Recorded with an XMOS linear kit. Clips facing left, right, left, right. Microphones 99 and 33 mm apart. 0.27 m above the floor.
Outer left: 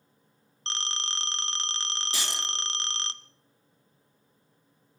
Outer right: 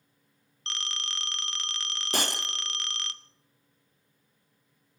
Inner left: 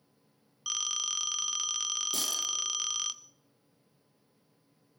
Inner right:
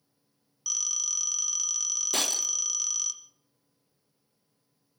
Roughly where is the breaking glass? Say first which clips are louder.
Outer right 8 dB, inner right 3 dB; right.